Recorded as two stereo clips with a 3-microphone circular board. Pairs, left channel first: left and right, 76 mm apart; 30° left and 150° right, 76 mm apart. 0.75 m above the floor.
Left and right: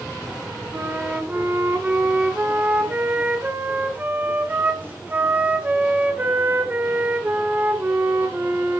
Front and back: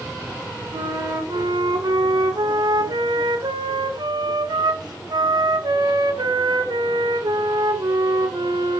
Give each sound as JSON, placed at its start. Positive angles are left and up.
{"t": 0.7, "sound": "a flute", "azimuth_deg": -155, "distance_m": 1.5}